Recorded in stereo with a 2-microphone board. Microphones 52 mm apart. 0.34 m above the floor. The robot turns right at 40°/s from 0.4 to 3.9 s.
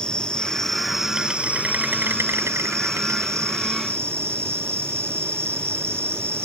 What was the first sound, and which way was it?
An insect, 160° left.